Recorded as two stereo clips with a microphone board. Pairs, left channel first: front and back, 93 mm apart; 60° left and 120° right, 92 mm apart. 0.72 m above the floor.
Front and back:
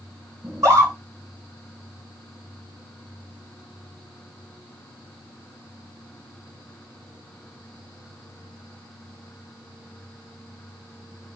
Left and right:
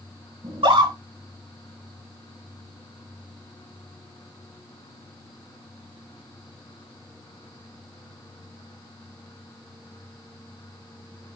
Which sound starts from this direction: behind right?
A scream, at 0.4 s.